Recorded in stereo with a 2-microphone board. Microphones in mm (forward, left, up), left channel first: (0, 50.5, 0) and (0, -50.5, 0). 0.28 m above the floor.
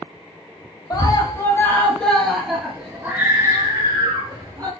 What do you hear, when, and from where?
0.9 s a scream: 40° left (ahead or behind), 1.3 m; by 4.7 s 35° right (ahead or behind), 2.5 m